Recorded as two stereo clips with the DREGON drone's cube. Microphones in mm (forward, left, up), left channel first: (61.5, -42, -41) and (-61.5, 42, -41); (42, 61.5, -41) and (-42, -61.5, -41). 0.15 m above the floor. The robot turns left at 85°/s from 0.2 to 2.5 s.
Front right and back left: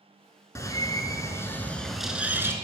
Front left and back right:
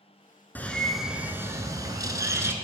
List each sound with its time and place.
0.6 s a bird: 5° right, 0.7 m; by 2.5 s 170° right, 0.7 m